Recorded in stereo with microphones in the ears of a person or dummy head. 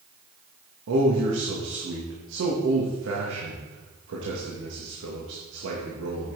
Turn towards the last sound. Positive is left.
turn(degrees=-75)  # may be behind; listen again after turning